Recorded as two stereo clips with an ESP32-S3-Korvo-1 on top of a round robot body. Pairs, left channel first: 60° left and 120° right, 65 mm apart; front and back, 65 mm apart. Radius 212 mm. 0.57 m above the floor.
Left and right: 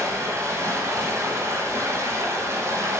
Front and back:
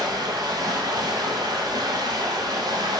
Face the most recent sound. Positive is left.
turn(degrees=-170)